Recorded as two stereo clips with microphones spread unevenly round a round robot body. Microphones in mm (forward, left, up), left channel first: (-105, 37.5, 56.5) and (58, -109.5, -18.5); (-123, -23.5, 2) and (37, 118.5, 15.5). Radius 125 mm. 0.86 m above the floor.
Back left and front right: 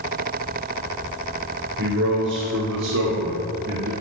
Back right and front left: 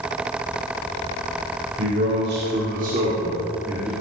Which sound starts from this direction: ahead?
A man speaking, at 1.8 s.